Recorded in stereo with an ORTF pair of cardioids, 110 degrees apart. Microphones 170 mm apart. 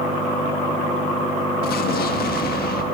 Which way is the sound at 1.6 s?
65° left.